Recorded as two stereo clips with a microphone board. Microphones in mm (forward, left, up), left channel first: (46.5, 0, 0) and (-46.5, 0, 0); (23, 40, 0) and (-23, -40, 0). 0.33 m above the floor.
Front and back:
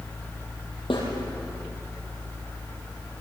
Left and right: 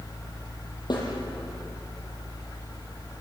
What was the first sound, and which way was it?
A snare drum, 20° left.